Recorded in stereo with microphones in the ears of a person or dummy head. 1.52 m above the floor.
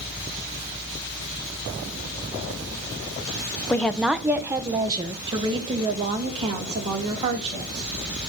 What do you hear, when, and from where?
3.7 s a woman speaking: 10° left (ahead or behind), 0.6 m; by 7.9 s 30° right (ahead or behind), 2.5 m